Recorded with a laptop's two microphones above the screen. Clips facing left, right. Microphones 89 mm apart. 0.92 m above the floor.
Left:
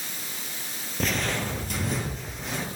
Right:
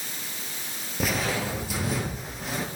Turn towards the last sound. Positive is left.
turn(degrees=-5)  # may be behind; listen again after turning